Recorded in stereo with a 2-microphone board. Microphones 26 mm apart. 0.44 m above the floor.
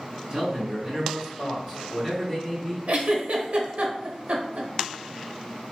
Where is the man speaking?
35° right (ahead or behind), 1.4 m; by 2.8 s centre (ahead or behind), 1.5 m.